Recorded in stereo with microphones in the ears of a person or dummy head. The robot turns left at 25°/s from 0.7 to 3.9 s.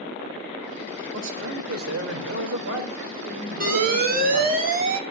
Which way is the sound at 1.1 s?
70° right.